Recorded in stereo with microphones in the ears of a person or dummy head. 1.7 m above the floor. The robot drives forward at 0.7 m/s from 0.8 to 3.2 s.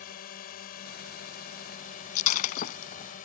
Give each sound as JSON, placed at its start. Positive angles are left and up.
{"t": 0.0, "sound": "a drone", "side_deg": 50}
{"t": 2.1, "sound": "breaking glass", "side_deg": 45}